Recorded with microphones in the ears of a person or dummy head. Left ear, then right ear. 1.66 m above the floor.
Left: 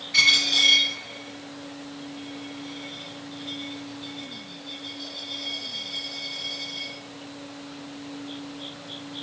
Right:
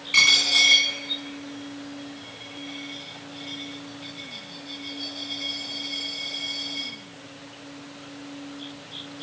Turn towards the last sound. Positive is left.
turn(degrees=-35)  # may be behind; listen again after turning